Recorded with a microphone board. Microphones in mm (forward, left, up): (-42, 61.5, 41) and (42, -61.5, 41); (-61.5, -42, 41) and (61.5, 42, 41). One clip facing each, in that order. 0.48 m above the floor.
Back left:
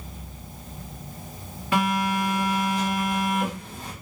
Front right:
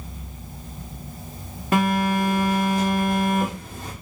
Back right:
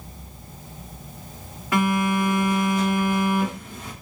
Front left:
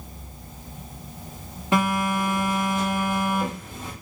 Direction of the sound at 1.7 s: 25° right.